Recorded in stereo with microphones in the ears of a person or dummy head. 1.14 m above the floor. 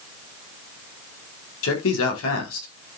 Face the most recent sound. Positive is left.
turn(degrees=80)